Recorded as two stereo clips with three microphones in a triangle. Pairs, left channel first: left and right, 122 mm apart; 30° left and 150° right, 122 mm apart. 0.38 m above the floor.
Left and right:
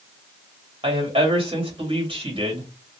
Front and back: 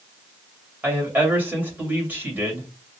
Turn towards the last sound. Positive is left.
turn(degrees=-80)